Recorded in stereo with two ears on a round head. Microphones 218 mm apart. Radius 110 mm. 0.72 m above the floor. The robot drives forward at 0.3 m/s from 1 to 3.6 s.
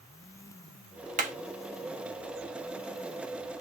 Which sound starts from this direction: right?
Hammering, at 1.2 s.